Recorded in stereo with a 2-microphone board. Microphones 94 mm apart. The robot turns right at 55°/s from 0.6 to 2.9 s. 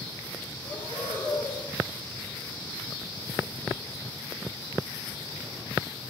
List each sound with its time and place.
0.7 s breathing: 130° left, 5 m; by 1.6 s 175° right, 5 m